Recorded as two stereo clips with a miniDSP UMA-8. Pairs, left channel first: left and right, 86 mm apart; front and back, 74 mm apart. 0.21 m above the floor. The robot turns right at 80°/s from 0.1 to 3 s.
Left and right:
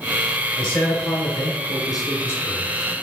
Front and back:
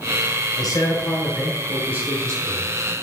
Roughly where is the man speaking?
Ahead.